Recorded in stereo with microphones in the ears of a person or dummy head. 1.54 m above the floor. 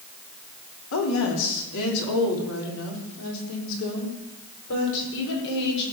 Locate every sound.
0.9 s a woman speaking: 70° left (ahead or behind), 3.5 m; by 5.8 s 60° left (ahead or behind), 5.5 m